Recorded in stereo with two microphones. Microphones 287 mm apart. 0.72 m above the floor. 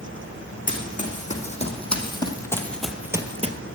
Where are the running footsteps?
30° left (ahead or behind), 3 m; by 3.5 s 25° right (ahead or behind), 0.9 m.